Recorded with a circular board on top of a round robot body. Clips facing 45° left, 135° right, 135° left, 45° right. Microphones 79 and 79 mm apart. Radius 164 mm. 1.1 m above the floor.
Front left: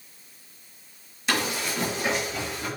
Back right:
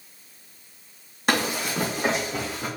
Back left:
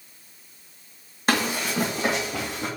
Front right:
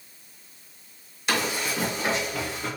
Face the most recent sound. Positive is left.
turn(degrees=160)